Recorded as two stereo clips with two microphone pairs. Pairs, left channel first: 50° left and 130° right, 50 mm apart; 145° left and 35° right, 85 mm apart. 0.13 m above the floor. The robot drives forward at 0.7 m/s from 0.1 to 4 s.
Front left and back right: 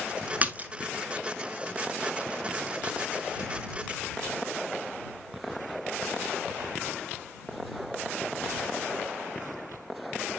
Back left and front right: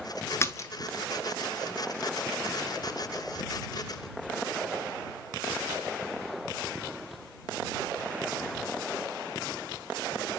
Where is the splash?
175° right, 0.8 m; by 0.7 s straight behind, 0.9 m.